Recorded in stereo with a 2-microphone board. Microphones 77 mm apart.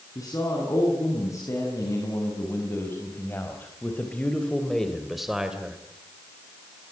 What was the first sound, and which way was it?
A man speaking, 50° left (ahead or behind).